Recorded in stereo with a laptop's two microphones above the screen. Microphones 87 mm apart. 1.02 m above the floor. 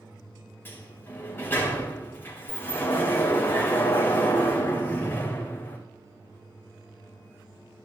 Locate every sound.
0.7 s a sliding door: 25° left (ahead or behind), 3.5 m